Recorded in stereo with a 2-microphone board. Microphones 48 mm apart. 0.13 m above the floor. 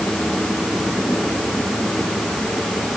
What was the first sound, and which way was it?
Only background noise.